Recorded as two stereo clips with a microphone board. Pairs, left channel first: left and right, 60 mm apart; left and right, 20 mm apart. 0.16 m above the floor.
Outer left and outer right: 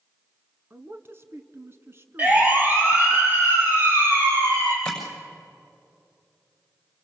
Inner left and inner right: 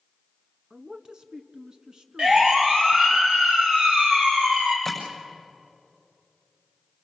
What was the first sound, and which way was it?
A man speaking, 40° right (ahead or behind).